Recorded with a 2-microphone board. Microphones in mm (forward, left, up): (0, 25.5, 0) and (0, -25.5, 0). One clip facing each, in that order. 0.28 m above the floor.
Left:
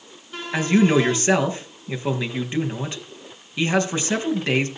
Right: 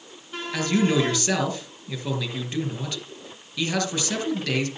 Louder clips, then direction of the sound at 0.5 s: Left 4 dB; 30° left (ahead or behind).